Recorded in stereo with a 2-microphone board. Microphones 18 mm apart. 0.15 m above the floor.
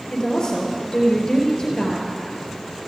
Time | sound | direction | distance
0.1 | a woman speaking | 35° left (ahead or behind) | 3.5 m